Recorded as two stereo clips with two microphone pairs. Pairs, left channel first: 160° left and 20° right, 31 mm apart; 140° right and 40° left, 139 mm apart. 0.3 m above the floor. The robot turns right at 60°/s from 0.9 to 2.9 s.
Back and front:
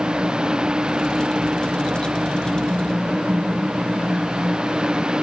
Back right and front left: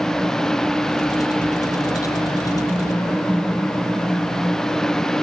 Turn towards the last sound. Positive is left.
No sound to turn to.